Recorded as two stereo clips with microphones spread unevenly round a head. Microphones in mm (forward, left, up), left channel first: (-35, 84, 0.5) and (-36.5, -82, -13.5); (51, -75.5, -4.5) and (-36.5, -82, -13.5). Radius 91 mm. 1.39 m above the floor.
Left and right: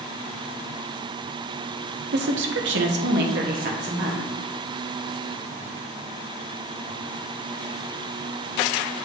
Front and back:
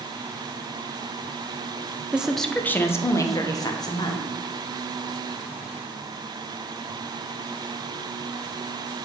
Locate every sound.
2.1 s a woman speaking: 100° right, 0.6 m; by 4.2 s 35° right, 1.6 m